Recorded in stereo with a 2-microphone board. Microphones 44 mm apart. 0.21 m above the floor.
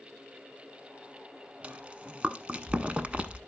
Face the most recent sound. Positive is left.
turn(degrees=-30)  # may be behind; listen again after turning